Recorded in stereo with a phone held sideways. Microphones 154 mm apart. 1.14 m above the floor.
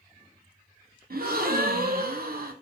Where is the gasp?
75° right (ahead or behind), 0.6 m.